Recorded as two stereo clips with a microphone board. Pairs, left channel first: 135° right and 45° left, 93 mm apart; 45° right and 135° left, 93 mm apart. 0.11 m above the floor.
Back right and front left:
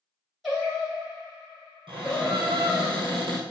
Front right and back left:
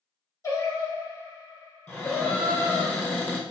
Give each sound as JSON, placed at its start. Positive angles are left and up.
{"t": 0.4, "sound": "singing", "azimuth_deg": -45, "distance_m": 1.3}
{"t": 1.9, "sound": "a cupboard door", "azimuth_deg": 30, "distance_m": 1.0}